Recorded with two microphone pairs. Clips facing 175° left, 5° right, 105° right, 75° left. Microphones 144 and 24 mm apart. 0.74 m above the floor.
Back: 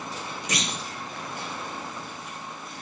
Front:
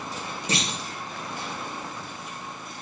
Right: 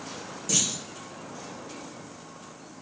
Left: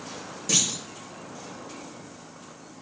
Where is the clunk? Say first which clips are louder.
Front 2 dB, left 2 dB; 35° left, 0.5 m.